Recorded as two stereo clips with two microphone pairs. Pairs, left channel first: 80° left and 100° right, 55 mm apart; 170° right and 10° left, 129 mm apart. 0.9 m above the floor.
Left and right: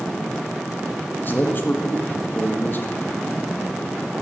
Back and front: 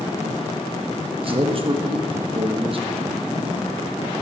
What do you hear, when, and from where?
1.2 s a man speaking: 40° left, 1.5 m